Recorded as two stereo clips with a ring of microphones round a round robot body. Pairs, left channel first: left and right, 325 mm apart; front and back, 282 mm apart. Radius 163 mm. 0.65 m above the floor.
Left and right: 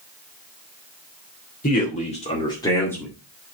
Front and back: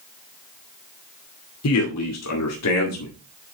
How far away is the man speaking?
About 2.5 m.